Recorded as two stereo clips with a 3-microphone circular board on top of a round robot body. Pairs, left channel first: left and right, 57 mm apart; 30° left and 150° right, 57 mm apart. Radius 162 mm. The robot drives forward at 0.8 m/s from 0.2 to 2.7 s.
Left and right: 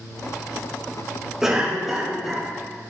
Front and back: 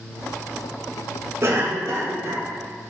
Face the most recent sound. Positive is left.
turn(degrees=-175)